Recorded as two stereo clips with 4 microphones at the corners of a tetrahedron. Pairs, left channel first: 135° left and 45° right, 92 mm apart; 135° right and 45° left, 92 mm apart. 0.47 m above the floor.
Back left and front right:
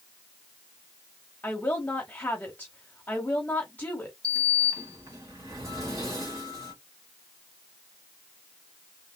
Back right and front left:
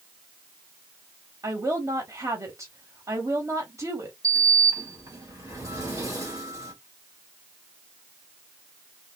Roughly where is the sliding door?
Ahead.